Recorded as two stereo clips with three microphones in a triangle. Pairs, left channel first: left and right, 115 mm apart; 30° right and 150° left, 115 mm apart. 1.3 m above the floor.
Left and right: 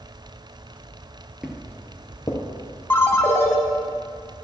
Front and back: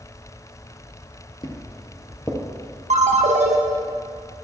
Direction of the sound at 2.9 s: 160° left.